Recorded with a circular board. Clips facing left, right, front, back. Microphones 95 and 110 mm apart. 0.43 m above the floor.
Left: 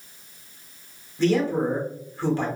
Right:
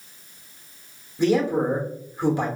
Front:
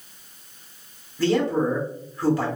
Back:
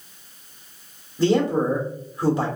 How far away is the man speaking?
About 0.9 m.